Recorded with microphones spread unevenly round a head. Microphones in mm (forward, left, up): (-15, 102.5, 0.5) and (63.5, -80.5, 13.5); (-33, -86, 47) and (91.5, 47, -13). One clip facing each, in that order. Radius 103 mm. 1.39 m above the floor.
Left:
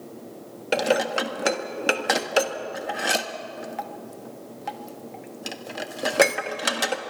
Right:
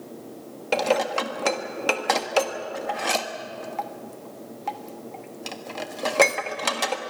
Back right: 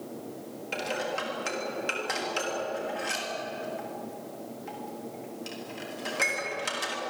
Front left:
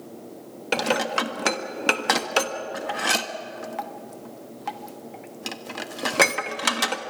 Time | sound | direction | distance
0.7 | dishes clattering | 35° left | 1.4 m